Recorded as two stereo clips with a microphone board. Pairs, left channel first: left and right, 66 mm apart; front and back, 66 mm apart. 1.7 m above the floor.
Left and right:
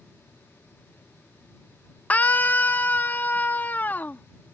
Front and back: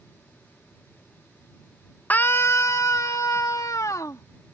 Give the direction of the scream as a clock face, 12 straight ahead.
11 o'clock.